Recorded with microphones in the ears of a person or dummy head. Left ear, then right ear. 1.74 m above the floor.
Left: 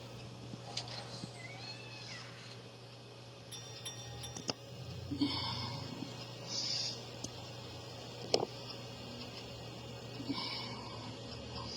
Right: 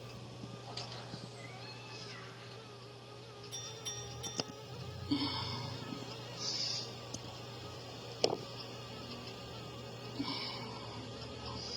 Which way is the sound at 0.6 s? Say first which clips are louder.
Left 2 dB; 20° left (ahead or behind).